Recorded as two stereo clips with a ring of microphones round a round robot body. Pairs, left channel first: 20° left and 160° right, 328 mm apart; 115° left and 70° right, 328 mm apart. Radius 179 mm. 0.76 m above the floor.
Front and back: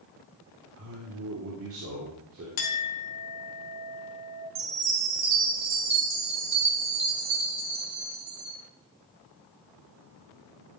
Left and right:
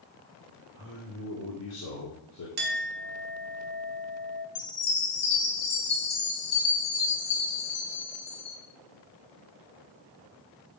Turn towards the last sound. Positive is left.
turn(degrees=155)